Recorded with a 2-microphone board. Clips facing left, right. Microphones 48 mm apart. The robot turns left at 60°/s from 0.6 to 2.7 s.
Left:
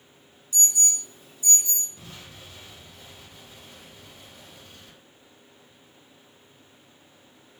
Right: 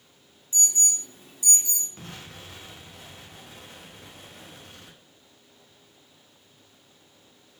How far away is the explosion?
About 1.1 m.